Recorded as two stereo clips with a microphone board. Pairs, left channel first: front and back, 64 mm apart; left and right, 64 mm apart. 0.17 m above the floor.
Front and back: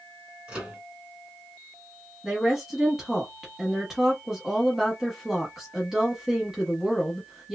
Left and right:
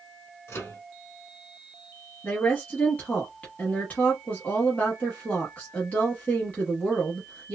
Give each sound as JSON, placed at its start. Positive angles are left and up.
{"t": 0.5, "sound": "a microwave", "azimuth_deg": 110, "distance_m": 1.7}
{"t": 2.2, "sound": "a woman speaking", "azimuth_deg": 105, "distance_m": 1.0}